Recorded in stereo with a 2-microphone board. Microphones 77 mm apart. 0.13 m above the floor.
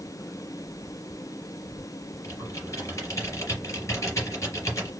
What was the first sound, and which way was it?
Typing on a keyboard, 40° left (ahead or behind).